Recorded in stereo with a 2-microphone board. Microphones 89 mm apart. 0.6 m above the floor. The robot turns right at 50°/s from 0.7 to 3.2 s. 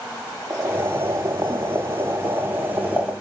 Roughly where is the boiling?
Behind right.